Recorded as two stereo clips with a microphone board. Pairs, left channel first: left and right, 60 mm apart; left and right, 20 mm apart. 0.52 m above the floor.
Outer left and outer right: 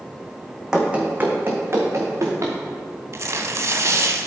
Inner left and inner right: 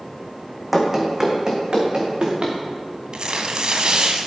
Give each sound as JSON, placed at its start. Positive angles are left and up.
{"t": 0.7, "sound": "running footsteps", "side_deg": -10, "distance_m": 1.3}
{"t": 3.1, "sound": "tearing paper", "side_deg": -60, "distance_m": 0.7}